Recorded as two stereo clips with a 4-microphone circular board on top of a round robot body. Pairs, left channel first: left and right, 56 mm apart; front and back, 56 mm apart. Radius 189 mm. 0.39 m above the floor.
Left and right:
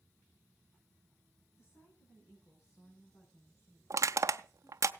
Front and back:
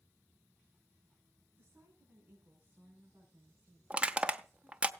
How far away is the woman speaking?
About 6.5 m.